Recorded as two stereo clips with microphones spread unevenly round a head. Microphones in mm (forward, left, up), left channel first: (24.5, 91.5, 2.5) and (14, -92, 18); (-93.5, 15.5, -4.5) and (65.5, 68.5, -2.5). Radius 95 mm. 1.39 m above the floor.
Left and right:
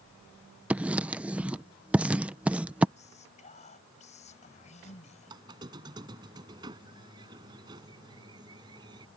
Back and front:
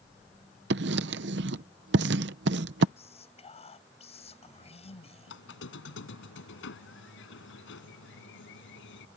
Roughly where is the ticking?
I don't hear ticking.